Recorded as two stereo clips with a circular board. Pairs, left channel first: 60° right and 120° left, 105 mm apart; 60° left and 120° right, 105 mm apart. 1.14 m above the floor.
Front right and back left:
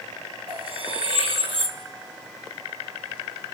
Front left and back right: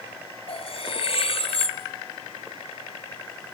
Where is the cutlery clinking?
90° left, 3.5 m.